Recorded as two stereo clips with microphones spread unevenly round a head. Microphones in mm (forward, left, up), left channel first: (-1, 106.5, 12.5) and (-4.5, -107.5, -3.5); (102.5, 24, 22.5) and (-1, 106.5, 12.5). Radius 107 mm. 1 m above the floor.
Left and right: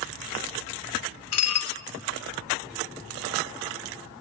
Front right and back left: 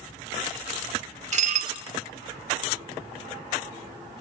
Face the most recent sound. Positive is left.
turn(degrees=110)